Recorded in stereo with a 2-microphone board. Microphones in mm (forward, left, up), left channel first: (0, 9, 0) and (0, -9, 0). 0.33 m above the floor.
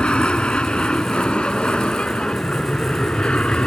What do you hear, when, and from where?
0.0 s an aircraft: 65° left (ahead or behind)